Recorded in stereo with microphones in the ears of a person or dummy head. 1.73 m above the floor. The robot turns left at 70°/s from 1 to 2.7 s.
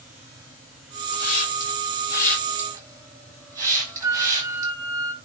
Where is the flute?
20° right (ahead or behind), 1.1 m.